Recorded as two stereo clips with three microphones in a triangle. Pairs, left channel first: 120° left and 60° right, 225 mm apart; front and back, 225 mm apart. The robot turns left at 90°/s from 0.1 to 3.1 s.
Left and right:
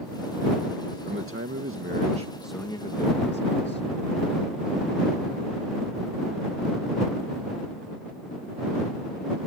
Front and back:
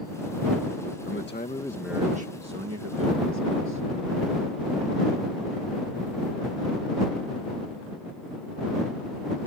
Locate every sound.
1.1 s a man speaking: 20° right; by 3.8 s 155° left